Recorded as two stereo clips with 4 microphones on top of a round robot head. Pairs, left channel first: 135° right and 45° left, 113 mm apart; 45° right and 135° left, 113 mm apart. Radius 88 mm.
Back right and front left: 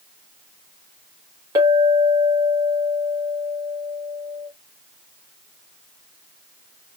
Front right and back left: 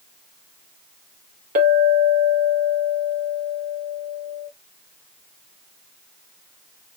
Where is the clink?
110° left, 1.0 m.